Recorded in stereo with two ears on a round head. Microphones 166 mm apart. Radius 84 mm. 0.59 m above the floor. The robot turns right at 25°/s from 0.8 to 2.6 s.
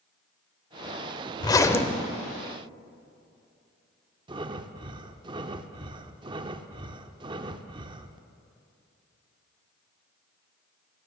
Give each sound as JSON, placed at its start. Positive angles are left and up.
{"t": 1.4, "sound": "a zipper", "side_deg": 20, "distance_m": 0.8}
{"t": 4.3, "sound": "breathing", "side_deg": -25, "distance_m": 0.6}